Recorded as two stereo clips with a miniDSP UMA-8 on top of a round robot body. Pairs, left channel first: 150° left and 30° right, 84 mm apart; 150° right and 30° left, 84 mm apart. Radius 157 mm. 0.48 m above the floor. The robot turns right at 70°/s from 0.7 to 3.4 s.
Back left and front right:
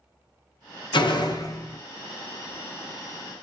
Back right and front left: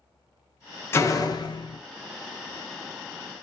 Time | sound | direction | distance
0.9 | a door slam | 155° left | 0.8 m